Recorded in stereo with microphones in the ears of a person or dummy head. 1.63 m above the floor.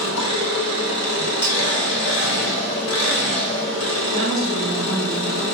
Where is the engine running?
70° left (ahead or behind), 0.9 m.